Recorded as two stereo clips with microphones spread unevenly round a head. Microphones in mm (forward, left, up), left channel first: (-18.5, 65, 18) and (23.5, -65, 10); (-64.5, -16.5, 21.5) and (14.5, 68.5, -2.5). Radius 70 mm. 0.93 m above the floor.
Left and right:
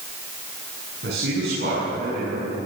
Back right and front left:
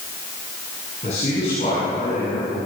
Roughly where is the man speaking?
Right.